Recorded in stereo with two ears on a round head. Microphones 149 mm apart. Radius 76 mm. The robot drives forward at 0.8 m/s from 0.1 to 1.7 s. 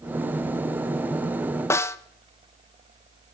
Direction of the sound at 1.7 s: 15° left (ahead or behind).